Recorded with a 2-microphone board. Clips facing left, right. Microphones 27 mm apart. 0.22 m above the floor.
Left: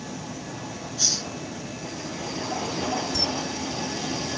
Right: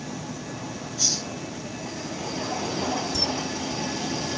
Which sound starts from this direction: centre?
A camera shutter, at 3.1 s.